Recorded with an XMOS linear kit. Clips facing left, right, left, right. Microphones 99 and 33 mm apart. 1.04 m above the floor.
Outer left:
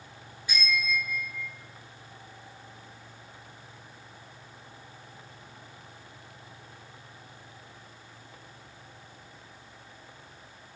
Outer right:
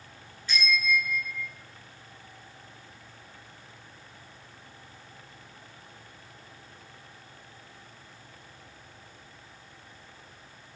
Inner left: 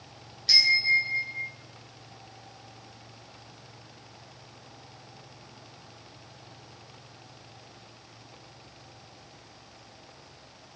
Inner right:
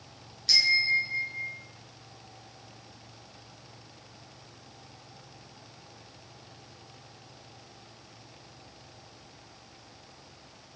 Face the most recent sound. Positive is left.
turn(degrees=10)  # may be behind; listen again after turning